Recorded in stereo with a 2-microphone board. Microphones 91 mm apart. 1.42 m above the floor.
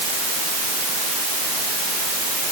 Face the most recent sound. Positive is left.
No sound to turn to.